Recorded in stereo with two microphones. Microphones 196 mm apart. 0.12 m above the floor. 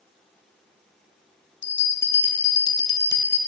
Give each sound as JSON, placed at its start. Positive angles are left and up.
{"t": 1.6, "sound": "a bell", "side_deg": -70, "distance_m": 0.6}